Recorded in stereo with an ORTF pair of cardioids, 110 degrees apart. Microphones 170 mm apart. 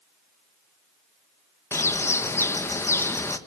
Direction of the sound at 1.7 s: 15° left.